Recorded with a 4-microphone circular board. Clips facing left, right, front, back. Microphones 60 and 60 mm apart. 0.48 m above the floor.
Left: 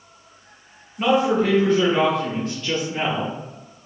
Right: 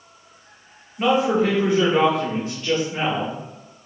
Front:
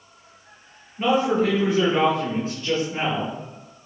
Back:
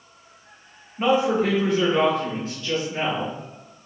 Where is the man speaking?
175° right, 1.2 m; by 3.3 s 25° right, 1.7 m.